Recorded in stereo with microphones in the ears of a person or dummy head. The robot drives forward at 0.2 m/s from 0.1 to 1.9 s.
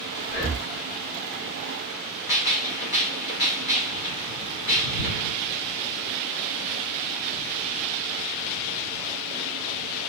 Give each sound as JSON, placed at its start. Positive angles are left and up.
{"t": 0.3, "sound": "breathing", "side_deg": 55, "distance_m": 1.1}
{"t": 2.3, "sound": "a gunshot", "side_deg": 25, "distance_m": 0.6}